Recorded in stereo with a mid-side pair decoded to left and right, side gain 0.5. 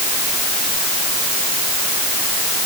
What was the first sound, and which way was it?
Only background noise.